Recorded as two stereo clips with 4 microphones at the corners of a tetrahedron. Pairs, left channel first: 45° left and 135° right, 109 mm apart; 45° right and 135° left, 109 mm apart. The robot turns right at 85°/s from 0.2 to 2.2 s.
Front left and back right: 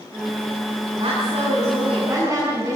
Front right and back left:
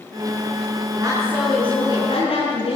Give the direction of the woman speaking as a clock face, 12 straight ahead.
6 o'clock.